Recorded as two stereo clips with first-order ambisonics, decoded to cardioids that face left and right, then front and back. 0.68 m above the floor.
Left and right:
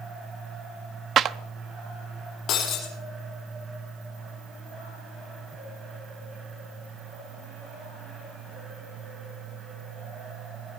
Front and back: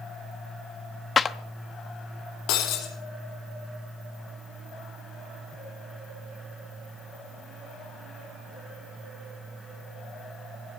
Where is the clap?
60° right, 0.7 m.